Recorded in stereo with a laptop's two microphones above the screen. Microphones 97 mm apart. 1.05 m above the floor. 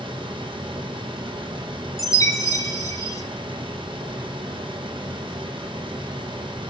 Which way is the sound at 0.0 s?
55° right (ahead or behind).